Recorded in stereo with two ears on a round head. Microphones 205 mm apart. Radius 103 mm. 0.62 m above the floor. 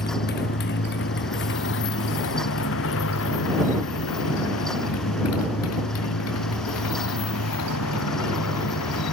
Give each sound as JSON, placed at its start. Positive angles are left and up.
{"t": 0.0, "sound": "a motorcycle", "side_deg": 45}